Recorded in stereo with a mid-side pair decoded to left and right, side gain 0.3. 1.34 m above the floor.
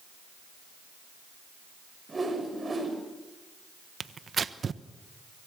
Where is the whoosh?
40° right, 7 m.